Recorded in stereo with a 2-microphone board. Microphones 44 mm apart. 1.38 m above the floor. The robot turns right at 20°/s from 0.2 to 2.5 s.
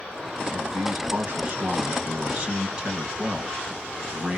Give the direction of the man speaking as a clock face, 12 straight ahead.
2 o'clock.